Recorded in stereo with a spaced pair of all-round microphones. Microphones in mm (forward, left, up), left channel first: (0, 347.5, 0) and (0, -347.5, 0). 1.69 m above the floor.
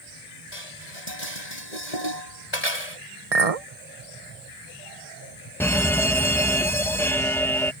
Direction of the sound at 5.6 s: 5° left (ahead or behind).